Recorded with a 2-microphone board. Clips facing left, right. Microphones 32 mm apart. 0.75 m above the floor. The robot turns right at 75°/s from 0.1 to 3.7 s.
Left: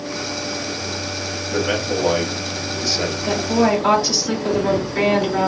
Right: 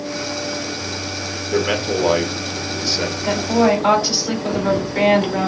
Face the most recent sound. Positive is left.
turn(degrees=-10)